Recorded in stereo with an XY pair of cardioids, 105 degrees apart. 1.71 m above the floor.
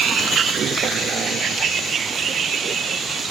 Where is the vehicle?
60° right; by 3.3 s 55° right.